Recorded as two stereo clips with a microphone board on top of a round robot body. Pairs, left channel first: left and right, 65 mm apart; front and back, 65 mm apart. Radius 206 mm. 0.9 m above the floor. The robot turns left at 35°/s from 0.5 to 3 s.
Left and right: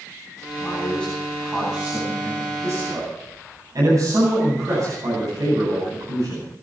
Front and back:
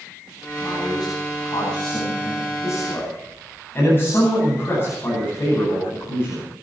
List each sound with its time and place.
0.6 s a man speaking: 25° left, 9.5 m; by 6.4 s 55° right, 9.5 m